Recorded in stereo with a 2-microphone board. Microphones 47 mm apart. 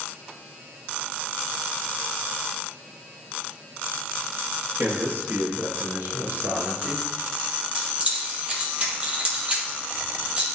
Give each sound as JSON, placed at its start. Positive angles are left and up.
{"t": 4.8, "sound": "a man speaking", "side_deg": -60, "distance_m": 2.5}
{"t": 7.8, "sound": "keys jangling", "side_deg": -25, "distance_m": 2.0}